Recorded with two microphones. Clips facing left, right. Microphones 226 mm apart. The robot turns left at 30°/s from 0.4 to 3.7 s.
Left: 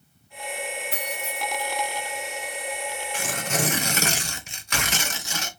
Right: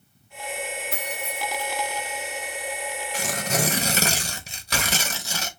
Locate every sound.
0.9 s keys jangling: 45° right (ahead or behind), 2 m; by 1.6 s 65° right (ahead or behind), 2 m
3.1 s tearing paper: 40° right (ahead or behind), 0.9 m; by 5.5 s 35° right (ahead or behind), 0.9 m